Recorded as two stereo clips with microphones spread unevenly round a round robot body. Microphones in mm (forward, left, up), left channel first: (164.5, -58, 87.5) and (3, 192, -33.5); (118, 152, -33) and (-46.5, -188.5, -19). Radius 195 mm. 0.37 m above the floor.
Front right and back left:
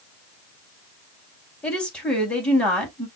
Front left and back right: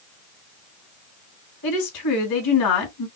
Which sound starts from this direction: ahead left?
A woman speaking, at 1.6 s.